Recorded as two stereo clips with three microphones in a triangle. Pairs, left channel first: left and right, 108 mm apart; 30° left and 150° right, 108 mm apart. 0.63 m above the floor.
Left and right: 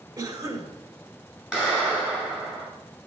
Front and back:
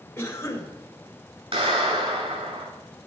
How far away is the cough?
About 2.5 m.